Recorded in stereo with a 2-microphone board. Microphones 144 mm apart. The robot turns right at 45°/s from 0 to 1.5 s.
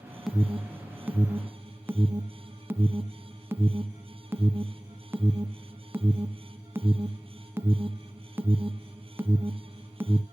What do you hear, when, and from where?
0.3 s an alarm: centre (ahead or behind), 0.7 m; by 10.2 s 15° right (ahead or behind), 0.7 m